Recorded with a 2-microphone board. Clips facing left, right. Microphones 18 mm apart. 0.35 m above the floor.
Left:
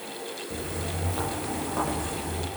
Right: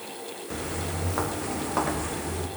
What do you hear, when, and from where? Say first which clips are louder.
0.5 s footsteps: right 3 dB; 45° right (ahead or behind), 4.5 m; by 2.5 s 35° right (ahead or behind), 5.5 m